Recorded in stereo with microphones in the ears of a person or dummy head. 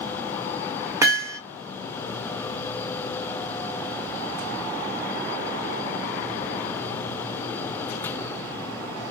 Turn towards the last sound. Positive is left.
turn(degrees=-15)  # may be behind; listen again after turning